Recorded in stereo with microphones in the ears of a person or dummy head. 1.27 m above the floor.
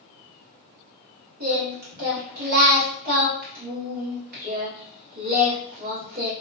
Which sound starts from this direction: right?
Singing, at 1.4 s.